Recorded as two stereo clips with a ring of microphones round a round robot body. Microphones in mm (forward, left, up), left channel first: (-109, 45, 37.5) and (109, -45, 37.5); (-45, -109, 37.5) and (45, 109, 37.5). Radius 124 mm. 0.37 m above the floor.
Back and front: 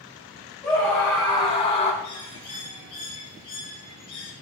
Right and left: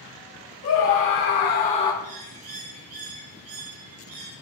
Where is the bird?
90° left, 3.5 m.